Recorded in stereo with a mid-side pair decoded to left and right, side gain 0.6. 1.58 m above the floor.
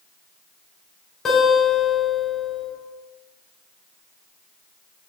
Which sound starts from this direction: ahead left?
A guitar, at 1.2 s.